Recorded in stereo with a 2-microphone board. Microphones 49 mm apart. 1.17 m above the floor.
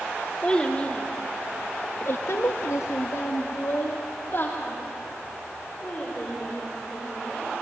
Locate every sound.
0.4 s a child speaking: 20° left (ahead or behind), 2.5 m; by 7.5 s 25° left (ahead or behind), 5 m